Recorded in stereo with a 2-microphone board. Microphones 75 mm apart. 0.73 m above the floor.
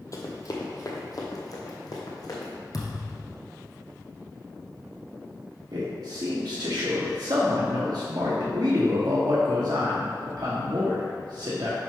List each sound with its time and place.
0.1 s running footsteps: 45° left (ahead or behind), 1.1 m; by 2.5 s 55° left (ahead or behind), 2 m
2.7 s a thud: 55° left (ahead or behind), 1.3 m
5.7 s a man speaking: 60° right (ahead or behind), 1.1 m